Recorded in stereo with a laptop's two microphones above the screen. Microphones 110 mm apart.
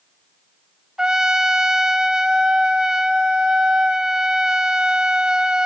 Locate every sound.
1.0 s a trumpet: 5° right (ahead or behind), 1.3 m